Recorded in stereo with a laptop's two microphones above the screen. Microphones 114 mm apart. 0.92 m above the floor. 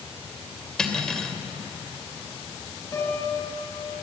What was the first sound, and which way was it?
Cutlery clinking, 5° left (ahead or behind).